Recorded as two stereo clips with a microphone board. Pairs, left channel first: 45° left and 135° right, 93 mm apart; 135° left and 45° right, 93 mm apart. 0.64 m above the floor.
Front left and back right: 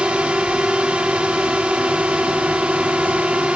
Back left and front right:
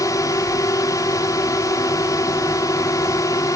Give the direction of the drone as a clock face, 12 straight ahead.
7 o'clock.